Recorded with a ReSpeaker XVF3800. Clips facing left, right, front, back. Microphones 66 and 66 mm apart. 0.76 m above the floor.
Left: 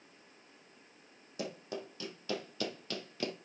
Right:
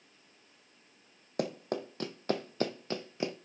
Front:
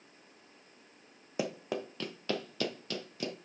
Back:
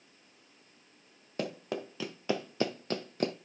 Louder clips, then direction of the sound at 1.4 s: Right 7 dB, front 1 dB; 80° right.